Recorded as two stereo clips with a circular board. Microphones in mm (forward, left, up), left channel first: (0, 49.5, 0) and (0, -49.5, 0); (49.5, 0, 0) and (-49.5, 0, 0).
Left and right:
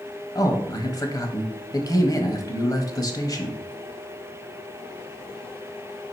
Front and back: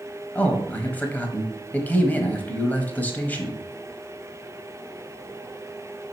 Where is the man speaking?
65° left, 1.2 m.